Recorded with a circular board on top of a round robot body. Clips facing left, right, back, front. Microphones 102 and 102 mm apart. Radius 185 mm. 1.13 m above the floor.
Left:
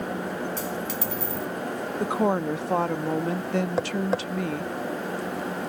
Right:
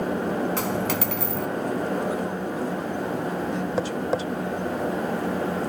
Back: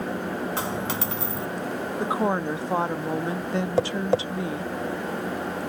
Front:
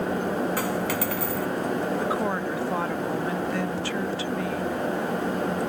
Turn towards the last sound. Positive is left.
turn(degrees=180)